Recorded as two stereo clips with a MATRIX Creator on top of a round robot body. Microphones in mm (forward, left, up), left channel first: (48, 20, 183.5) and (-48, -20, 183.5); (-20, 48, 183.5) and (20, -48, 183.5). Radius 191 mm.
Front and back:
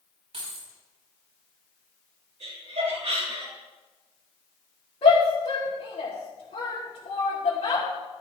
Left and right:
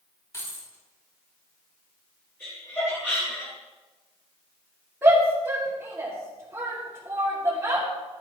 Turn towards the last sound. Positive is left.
turn(degrees=0)